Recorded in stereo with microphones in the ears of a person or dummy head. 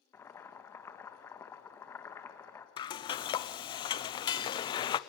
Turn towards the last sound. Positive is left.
turn(degrees=30)  # may be behind; listen again after turning